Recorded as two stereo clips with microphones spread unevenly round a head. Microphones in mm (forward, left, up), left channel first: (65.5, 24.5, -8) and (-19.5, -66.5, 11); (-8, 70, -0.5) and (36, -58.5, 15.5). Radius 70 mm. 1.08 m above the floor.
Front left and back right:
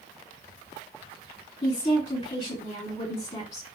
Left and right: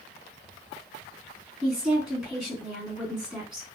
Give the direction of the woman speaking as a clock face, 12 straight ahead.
12 o'clock.